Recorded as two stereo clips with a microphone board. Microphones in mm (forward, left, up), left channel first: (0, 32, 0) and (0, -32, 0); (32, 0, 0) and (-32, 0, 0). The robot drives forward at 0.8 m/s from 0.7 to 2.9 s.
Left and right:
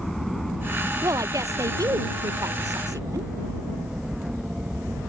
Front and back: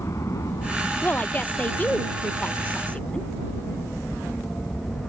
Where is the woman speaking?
60° right; by 3.3 s 70° right.